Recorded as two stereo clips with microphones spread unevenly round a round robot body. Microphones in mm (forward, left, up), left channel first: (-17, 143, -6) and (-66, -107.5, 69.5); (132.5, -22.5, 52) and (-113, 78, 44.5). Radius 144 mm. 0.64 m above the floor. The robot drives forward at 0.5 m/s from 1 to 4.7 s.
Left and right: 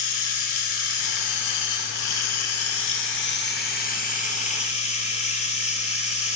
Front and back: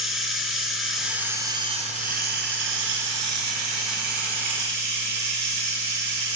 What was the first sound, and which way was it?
Running water, 70° left.